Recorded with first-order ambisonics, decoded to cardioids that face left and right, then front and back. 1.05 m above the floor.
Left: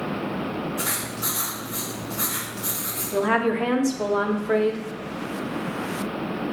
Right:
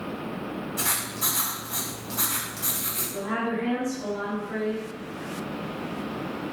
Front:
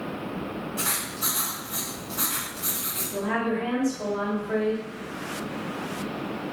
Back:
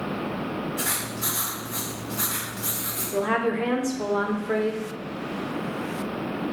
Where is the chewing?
I don't hear chewing.